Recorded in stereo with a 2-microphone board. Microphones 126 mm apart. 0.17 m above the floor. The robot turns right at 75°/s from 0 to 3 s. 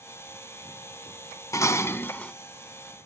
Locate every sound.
1.5 s dishes clattering: 25° left (ahead or behind), 0.7 m; by 2.3 s 10° left (ahead or behind), 0.7 m